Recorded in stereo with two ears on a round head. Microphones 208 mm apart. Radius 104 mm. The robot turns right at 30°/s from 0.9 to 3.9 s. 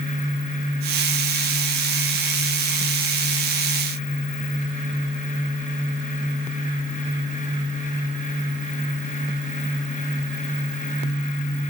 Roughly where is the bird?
No bird in this recording.